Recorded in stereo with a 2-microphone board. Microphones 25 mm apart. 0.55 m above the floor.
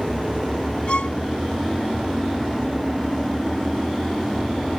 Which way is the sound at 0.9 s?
45° left (ahead or behind).